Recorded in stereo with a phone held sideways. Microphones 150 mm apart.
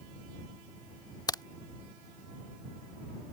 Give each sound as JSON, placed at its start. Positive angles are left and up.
{"t": 1.3, "sound": "a crack", "side_deg": 25}